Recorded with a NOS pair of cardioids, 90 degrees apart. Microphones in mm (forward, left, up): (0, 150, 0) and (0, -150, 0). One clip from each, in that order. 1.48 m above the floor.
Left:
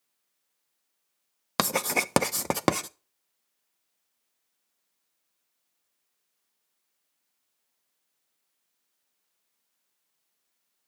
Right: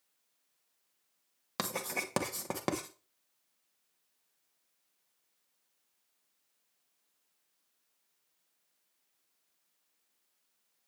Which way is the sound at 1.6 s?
55° left.